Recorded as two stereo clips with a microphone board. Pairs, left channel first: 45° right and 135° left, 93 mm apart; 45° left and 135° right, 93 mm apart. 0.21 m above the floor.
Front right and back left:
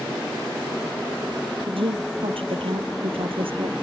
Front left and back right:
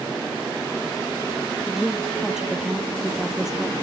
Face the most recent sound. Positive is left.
turn(degrees=140)